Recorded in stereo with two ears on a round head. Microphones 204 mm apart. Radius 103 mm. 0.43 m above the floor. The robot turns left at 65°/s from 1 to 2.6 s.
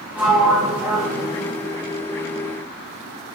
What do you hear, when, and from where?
0.1 s a sliding door: 10° right, 0.8 m; by 1.6 s 45° right, 0.8 m